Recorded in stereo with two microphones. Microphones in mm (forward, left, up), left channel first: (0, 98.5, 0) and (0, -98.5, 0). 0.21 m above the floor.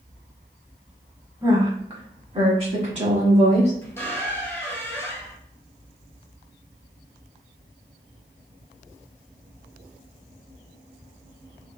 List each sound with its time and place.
1.4 s a woman speaking: 20° right (ahead or behind), 1.2 m; by 3.7 s 35° right (ahead or behind), 2 m
3.8 s a squeak: 10° left (ahead or behind), 1.0 m